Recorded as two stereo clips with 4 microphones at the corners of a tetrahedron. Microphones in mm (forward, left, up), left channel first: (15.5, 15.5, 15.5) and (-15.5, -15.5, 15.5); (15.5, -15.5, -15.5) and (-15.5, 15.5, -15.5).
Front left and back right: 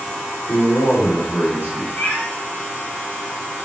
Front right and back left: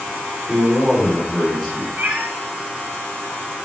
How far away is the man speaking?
About 3.5 m.